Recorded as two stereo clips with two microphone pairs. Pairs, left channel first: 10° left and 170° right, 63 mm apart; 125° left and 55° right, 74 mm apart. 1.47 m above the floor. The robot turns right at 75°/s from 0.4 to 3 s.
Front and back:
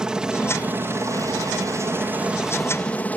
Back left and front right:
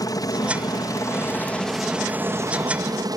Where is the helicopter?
110° left; by 3.2 s 55° right.